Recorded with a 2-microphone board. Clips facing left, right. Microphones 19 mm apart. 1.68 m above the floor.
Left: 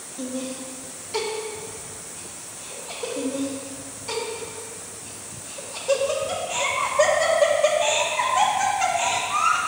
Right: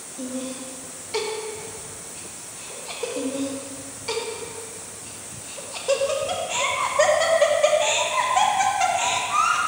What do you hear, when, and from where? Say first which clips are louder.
0.2 s laughter: even; 10° left (ahead or behind), 1.2 m; by 3.1 s 60° right (ahead or behind), 1.3 m
3.2 s laughter: left 1 dB; 30° right (ahead or behind), 0.9 m